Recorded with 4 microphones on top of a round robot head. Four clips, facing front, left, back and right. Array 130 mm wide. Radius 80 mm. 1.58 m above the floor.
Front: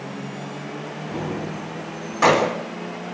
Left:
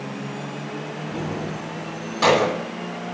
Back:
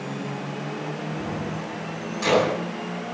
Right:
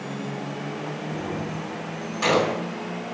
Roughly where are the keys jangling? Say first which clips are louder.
Left 4 dB, front 2 dB; ahead.